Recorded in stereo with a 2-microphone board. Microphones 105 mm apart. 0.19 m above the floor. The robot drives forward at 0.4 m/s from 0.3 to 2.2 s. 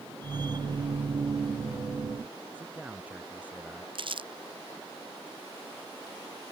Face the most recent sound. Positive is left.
turn(degrees=-55)  # may be behind; listen again after turning